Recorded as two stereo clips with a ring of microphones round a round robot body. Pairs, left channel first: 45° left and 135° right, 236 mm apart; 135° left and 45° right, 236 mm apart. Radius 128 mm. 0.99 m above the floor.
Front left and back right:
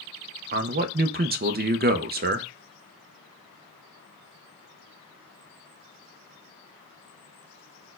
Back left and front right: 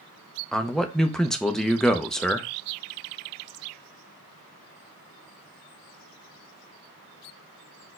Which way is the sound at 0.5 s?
140° right.